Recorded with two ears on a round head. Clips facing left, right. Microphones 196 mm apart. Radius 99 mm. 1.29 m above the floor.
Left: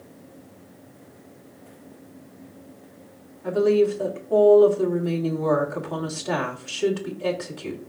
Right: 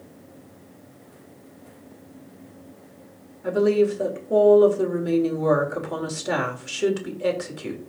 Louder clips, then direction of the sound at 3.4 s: Even; 20° right (ahead or behind).